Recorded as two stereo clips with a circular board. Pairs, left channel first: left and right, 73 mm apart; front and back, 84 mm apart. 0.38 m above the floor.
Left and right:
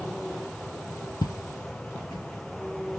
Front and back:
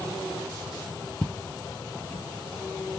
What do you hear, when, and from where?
1.2 s footsteps: 70° left, 0.7 m; by 2.2 s 60° left, 1.6 m